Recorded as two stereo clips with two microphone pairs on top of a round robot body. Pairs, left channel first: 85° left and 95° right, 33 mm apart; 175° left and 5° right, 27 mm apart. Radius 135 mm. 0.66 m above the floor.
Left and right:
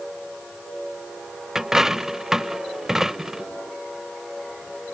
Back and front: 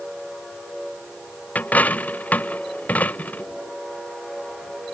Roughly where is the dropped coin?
Behind.